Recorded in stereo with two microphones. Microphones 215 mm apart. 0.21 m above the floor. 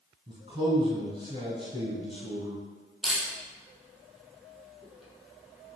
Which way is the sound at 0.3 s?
30° right (ahead or behind).